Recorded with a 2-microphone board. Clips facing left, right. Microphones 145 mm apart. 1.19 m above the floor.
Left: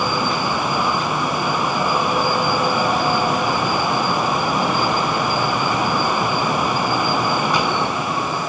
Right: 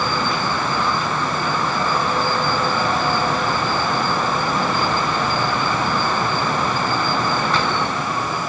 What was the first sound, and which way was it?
Only background noise.